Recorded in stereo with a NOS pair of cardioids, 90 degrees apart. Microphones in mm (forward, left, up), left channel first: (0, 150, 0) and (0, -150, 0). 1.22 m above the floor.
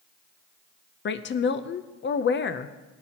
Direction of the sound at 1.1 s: 40° left.